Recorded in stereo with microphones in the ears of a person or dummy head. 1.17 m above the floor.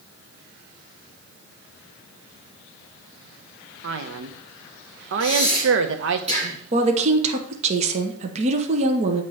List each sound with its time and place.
3.8 s a man speaking: 65° right (ahead or behind), 0.7 m
5.2 s breathing: 40° right (ahead or behind), 1.9 m
6.7 s a woman speaking: 30° right (ahead or behind), 0.7 m